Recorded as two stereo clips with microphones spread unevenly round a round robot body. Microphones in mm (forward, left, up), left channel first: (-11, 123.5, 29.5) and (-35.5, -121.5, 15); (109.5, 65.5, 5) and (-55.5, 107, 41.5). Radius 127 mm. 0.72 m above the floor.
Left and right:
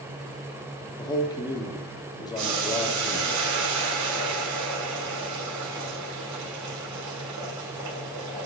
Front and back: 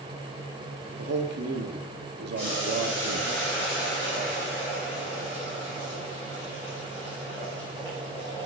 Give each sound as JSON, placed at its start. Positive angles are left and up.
{"t": 1.0, "sound": "a man speaking", "azimuth_deg": 160, "distance_m": 1.2}
{"t": 2.4, "sound": "boiling", "azimuth_deg": -95, "distance_m": 2.5}